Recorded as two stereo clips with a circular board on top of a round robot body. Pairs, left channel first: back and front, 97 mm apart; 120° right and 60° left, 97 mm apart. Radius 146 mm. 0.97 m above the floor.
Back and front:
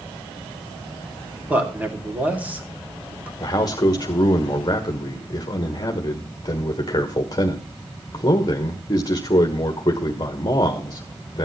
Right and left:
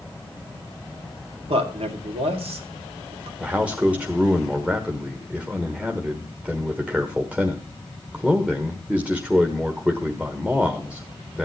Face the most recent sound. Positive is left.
turn(degrees=135)